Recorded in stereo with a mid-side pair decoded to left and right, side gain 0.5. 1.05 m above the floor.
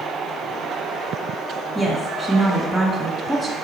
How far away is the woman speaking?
About 1.3 m.